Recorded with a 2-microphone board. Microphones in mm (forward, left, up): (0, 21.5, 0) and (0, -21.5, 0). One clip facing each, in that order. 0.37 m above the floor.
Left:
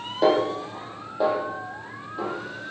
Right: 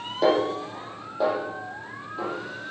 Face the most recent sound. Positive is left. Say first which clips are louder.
# left 1 dB
turn(degrees=10)  # may be behind; listen again after turning